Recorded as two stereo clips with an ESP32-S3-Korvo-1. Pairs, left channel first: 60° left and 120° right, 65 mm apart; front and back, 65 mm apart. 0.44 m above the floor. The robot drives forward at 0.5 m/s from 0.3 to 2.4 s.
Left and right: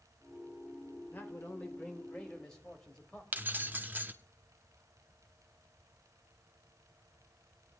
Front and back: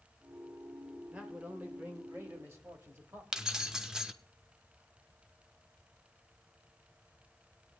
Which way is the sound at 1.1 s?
115° left.